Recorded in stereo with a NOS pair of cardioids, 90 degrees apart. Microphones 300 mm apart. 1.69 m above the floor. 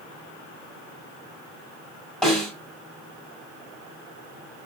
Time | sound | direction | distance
2.2 | a snare drum | straight ahead | 2 m